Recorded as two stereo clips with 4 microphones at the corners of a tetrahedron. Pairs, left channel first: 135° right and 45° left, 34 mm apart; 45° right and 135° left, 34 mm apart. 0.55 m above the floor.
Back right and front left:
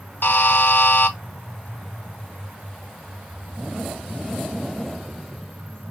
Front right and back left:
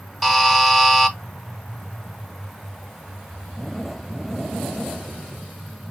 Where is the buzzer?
135° right, 0.7 m.